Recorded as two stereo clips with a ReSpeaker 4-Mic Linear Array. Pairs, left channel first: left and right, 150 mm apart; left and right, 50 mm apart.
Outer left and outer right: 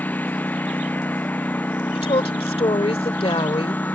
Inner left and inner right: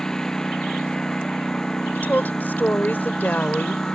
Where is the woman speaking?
40° left (ahead or behind).